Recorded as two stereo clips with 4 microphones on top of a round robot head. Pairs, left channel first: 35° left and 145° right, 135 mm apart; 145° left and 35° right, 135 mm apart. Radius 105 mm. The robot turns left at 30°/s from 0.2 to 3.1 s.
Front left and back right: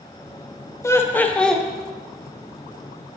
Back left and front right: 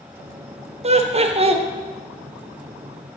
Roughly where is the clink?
I don't hear a clink.